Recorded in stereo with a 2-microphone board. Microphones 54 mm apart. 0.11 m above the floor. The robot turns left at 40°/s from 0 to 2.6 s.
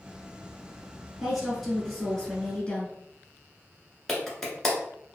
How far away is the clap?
About 1.0 m.